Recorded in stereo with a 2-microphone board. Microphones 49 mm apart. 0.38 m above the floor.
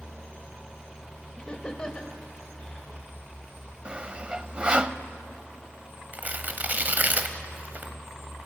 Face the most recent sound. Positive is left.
turn(degrees=-35)  # may be behind; listen again after turning